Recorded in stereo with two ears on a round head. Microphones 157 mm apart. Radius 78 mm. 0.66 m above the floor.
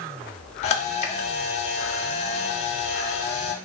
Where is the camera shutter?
40° left (ahead or behind), 0.5 m.